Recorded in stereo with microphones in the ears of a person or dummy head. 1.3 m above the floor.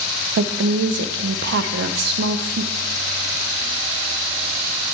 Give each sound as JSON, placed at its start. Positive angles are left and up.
{"t": 0.4, "sound": "a woman speaking", "side_deg": -60, "distance_m": 0.7}